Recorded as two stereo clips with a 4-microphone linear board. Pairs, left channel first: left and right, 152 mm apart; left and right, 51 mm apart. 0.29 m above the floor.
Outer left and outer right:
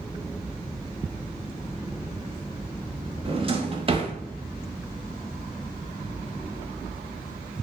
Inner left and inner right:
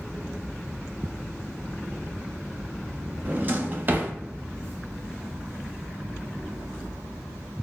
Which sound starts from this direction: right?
A drawer, at 3.2 s.